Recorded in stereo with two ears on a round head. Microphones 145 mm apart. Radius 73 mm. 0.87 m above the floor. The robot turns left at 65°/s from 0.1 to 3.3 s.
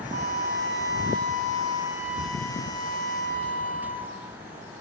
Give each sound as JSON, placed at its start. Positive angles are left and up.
{"t": 0.1, "sound": "a flute", "azimuth_deg": -40, "distance_m": 5.0}